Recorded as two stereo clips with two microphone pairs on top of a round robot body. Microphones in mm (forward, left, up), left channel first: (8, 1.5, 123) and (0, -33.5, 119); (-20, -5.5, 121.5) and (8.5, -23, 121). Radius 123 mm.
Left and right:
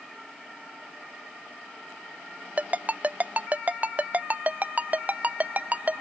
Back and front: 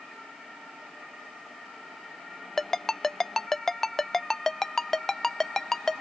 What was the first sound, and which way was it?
A ringtone, 135° right.